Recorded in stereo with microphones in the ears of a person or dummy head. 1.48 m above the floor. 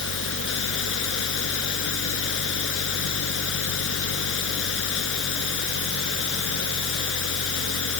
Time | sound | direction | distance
0.0 | a fan | 75° left (ahead or behind) | ?